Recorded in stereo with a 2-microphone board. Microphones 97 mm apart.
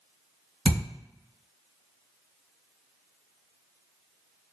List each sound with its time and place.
0.7 s a thud: 65° right (ahead or behind), 1.8 m